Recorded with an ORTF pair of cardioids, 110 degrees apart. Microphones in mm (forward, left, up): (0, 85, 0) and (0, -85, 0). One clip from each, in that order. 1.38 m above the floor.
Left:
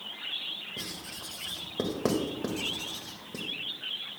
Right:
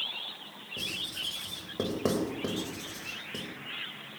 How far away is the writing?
About 2 m.